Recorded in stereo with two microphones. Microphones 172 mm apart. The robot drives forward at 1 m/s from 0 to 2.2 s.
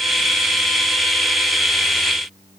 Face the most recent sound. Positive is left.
No sound to turn to.